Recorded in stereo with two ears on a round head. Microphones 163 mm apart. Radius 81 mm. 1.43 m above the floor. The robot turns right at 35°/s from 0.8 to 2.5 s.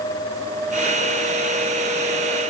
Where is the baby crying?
I don't hear a baby crying.